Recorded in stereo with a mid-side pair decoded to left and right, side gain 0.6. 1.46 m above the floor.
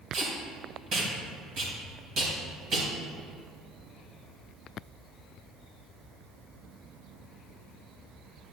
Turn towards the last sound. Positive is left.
turn(degrees=-50)